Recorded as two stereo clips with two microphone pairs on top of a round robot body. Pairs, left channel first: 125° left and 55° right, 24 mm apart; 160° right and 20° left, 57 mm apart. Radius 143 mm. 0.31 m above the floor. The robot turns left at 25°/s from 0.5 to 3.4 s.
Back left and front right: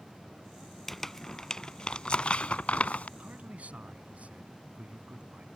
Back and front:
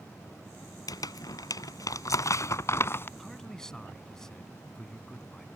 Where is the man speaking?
70° right; by 5.5 s 75° right.